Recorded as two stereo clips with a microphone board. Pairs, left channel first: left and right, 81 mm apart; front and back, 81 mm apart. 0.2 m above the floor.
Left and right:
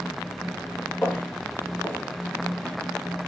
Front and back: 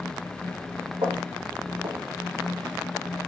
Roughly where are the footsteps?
Behind.